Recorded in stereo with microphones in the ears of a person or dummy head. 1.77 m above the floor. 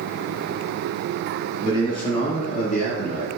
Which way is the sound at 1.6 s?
25° left (ahead or behind).